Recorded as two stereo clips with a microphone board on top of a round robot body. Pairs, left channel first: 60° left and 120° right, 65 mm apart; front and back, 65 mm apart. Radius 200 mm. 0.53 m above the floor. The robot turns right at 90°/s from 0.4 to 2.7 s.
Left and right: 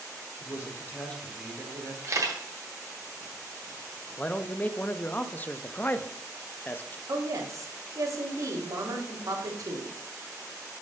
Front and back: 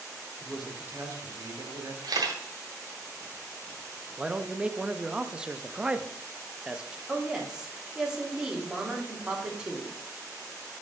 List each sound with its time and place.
0.4 s a man speaking: 80° left, 2.0 m; by 1.9 s 145° right, 2.0 m
2.0 s a camera shutter: 170° right, 1.6 m; by 2.4 s 140° right, 1.6 m
4.2 s a man speaking: 110° left, 0.8 m
7.1 s a woman speaking: 100° right, 2 m